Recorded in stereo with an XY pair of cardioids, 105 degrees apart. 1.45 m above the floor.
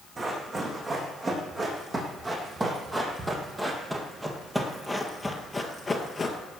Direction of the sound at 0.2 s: 35° right.